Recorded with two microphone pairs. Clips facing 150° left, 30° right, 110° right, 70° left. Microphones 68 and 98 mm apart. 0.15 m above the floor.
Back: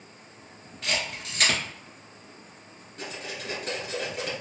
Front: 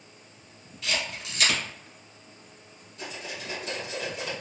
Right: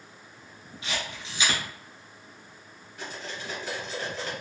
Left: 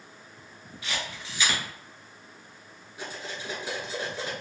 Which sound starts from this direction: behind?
A camera shutter, at 0.8 s.